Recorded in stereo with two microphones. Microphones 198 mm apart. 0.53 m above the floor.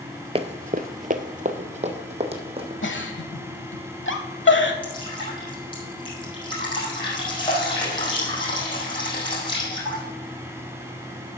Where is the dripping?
25° left (ahead or behind), 5 m.